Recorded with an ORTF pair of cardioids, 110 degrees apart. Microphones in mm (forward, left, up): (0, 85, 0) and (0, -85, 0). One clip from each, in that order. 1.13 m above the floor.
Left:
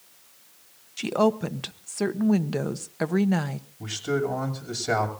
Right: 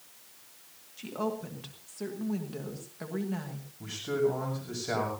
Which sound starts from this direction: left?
A woman speaking, at 1.0 s.